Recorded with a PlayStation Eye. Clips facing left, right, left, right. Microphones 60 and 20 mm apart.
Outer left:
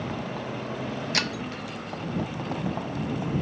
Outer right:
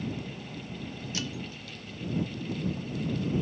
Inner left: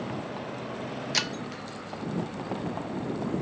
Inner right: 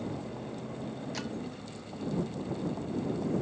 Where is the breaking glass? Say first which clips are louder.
Outer left 7 dB, inner left 8 dB; 65° left (ahead or behind).